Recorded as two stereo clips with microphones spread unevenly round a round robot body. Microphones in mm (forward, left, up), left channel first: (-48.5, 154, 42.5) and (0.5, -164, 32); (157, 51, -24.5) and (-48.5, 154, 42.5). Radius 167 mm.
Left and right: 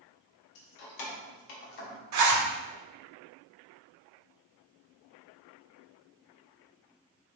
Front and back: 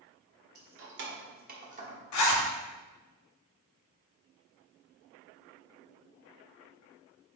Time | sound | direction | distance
0.6 | keys jangling | 120° left | 1.2 m
2.1 | a zipper | 35° right | 0.9 m